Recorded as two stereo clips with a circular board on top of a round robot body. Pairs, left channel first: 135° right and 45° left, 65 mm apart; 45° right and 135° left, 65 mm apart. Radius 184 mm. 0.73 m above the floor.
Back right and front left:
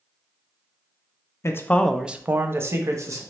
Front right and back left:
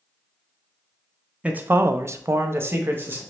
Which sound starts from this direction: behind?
A man speaking, at 1.4 s.